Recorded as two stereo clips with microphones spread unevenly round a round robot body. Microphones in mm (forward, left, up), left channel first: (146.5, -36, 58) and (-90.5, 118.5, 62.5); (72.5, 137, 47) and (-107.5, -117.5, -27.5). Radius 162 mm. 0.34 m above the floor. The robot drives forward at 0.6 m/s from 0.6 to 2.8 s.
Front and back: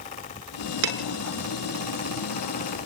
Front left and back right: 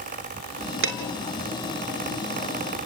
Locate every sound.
0.8 s dishes clattering: 175° right, 3.5 m